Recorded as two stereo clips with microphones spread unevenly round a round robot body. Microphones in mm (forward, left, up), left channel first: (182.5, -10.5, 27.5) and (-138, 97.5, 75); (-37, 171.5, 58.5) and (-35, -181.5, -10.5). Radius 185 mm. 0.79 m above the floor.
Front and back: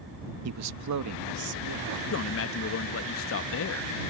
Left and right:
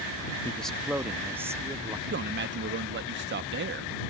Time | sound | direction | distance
0.5 | a man speaking | 175° right | ?
2.1 | a man speaking | 50° right | ?